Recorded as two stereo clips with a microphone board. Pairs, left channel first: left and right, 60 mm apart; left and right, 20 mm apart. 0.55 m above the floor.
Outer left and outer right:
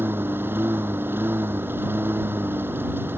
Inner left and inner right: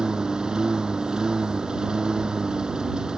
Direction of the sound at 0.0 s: 35° right (ahead or behind).